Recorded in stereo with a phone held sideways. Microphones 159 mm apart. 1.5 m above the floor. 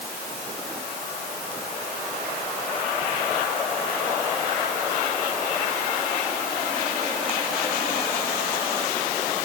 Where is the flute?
I don't hear a flute.